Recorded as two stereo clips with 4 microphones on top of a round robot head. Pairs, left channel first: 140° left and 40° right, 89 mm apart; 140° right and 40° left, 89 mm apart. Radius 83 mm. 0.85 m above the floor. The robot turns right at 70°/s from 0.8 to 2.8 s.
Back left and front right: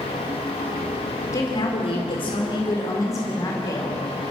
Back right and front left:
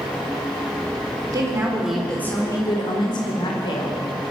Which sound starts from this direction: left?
A woman speaking, at 1.3 s.